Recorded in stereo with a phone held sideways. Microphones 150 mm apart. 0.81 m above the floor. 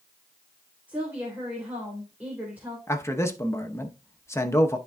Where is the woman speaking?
10° right (ahead or behind), 3 m.